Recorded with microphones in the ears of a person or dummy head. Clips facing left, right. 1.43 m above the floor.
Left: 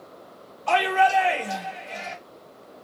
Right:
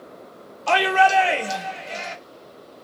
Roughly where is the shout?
Right.